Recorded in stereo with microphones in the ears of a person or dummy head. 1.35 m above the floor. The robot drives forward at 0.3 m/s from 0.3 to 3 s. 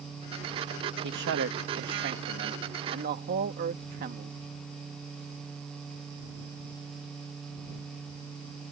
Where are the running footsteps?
No running footsteps in this recording.